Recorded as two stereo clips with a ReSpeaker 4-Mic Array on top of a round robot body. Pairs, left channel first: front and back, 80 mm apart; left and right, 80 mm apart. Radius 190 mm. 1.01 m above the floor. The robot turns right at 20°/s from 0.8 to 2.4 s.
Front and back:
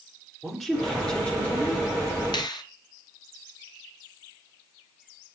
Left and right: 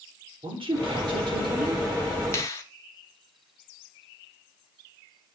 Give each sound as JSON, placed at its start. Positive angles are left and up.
{"t": 0.4, "sound": "a woman speaking", "azimuth_deg": -85, "distance_m": 3.0}
{"t": 2.3, "sound": "a finger snap", "azimuth_deg": 35, "distance_m": 1.3}